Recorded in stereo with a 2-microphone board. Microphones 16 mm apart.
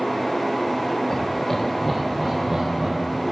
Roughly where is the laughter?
Left.